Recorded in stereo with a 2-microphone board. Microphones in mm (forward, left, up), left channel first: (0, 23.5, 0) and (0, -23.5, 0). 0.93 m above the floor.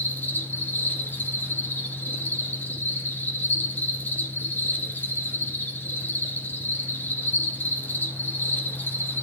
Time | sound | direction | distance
0.0 | an insect | 40° left (ahead or behind) | 2.5 m